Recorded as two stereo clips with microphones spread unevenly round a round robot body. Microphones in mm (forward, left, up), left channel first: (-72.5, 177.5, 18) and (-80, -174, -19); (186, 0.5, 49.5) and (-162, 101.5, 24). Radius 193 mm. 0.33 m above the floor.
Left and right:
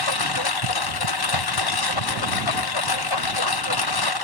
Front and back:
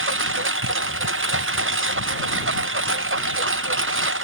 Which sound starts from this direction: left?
A lawn mower, at 0.0 s.